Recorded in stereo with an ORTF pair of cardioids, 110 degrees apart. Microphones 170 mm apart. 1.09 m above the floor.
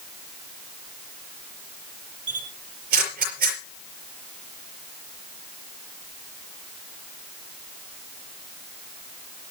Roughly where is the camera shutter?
Ahead right.